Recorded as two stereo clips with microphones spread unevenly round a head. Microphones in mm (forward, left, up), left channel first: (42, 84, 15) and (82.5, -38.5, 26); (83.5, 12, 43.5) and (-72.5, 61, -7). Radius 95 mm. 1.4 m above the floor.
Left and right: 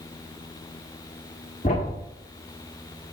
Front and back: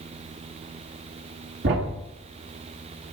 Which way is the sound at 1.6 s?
155° left.